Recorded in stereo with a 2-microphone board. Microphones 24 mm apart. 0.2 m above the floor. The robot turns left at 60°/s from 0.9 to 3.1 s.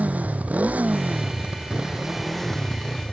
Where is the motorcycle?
95° right; by 3.1 s 130° left.